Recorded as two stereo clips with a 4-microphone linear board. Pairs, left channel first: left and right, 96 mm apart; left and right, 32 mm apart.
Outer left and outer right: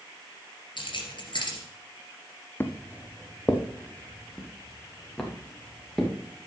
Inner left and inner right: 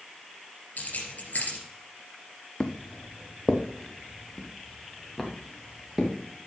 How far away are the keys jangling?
About 3 m.